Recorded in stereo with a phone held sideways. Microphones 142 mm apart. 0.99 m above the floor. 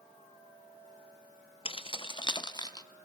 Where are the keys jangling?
40° left (ahead or behind), 0.8 m; by 2.9 s 30° left (ahead or behind), 1.4 m.